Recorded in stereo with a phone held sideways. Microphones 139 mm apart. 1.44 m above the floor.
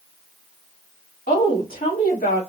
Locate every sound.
1.3 s a woman speaking: 85° left, 3 m